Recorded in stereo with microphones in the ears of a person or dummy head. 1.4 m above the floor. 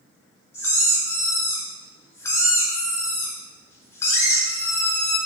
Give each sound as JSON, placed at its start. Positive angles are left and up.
{"t": 0.5, "sound": "a squeak", "side_deg": 20, "distance_m": 0.5}